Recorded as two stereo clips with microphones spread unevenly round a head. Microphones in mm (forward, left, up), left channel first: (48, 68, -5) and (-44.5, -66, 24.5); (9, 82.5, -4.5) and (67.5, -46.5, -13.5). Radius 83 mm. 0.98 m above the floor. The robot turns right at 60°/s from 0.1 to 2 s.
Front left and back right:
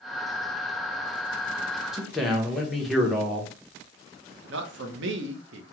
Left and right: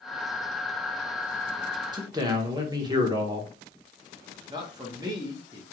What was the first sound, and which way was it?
A man speaking, 30° right.